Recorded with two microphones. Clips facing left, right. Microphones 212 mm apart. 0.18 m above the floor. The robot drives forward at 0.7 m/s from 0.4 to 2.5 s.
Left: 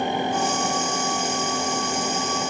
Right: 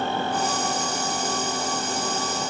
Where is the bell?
No bell in this recording.